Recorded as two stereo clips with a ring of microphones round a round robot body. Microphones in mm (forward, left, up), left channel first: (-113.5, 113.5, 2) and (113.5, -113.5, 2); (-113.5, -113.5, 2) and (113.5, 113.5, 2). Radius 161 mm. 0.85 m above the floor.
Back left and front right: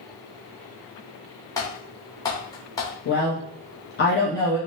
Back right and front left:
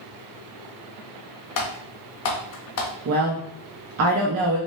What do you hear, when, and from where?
1.6 s typing on a keyboard: 150° right, 0.6 m
3.0 s a woman speaking: 80° left, 0.6 m